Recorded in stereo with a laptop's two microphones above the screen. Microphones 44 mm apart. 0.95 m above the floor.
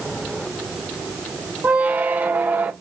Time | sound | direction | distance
1.6 | a squeak | 40° right (ahead or behind) | 0.6 m